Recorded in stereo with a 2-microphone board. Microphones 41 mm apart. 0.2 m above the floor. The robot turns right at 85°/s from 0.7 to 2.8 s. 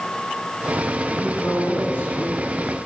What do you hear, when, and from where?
1.1 s a man speaking: 10° left (ahead or behind), 2 m; by 2.9 s 20° left (ahead or behind), 2 m